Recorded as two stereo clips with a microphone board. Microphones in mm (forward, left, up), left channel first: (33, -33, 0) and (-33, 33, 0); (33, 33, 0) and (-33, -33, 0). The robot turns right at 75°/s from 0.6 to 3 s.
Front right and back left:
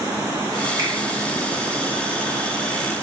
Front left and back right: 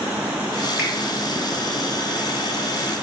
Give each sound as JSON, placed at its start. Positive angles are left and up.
{"t": 0.8, "sound": "a finger snap", "azimuth_deg": -55, "distance_m": 1.7}